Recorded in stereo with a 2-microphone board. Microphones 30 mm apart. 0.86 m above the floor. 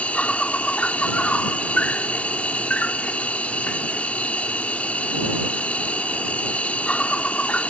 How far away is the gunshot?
No gunshot in this recording.